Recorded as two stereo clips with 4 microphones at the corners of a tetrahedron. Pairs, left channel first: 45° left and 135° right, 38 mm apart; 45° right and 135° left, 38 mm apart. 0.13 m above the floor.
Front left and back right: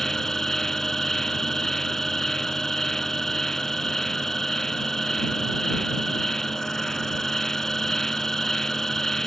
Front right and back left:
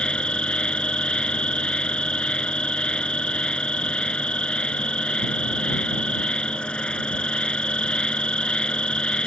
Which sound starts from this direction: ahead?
An insect, at 0.0 s.